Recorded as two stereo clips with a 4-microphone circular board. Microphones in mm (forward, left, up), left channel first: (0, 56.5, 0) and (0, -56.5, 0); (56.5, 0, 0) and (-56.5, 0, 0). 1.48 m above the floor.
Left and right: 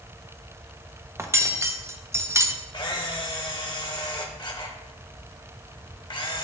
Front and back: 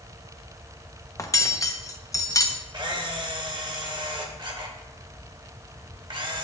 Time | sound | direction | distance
1.2 | cutlery clinking | 40° right | 0.6 m
2.7 | a camera shutter | 135° left | 1.0 m